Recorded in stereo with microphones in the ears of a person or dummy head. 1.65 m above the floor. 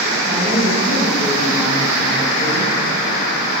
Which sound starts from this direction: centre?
A woman speaking, at 0.3 s.